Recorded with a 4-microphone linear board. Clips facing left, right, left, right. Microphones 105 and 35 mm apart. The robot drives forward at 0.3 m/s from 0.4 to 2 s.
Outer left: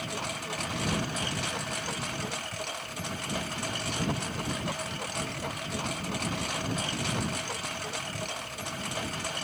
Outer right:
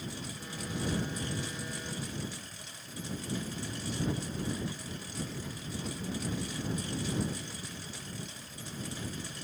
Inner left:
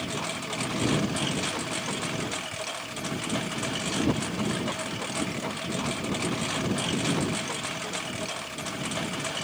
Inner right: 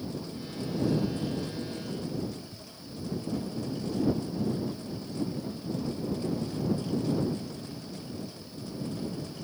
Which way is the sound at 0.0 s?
75° left (ahead or behind).